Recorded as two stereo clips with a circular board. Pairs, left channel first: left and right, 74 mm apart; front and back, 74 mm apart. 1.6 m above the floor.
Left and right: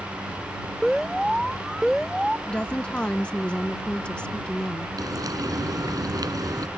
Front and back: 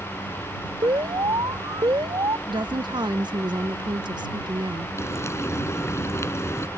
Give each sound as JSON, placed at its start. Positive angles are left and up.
{"t": 0.8, "sound": "an alarm", "azimuth_deg": 180}
{"t": 2.5, "sound": "a woman speaking", "azimuth_deg": 165}
{"t": 5.0, "sound": "frying", "azimuth_deg": -55}